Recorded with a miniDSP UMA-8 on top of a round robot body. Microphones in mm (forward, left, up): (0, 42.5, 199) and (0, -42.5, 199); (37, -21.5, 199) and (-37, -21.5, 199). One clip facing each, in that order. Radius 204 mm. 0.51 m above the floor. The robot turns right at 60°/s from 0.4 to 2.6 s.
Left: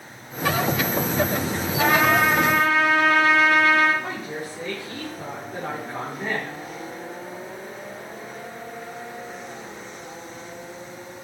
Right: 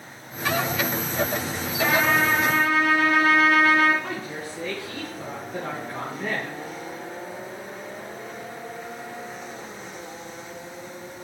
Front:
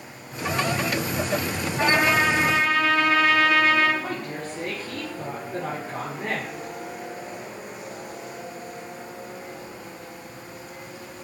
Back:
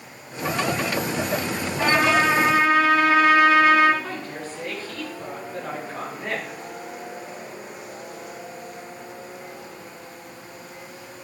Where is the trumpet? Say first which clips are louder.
Left 3 dB, back 1 dB; 60° left, 1.8 m; by 3.9 s 110° left, 1.8 m.